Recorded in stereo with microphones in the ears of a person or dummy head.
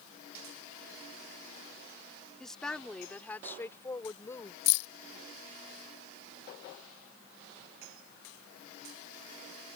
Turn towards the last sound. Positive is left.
turn(degrees=60)  # may be behind; listen again after turning